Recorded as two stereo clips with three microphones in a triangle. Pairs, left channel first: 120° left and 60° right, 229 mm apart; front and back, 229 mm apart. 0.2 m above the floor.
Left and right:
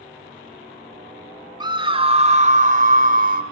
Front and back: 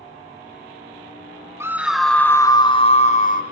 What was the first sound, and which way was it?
A scream, 110° right.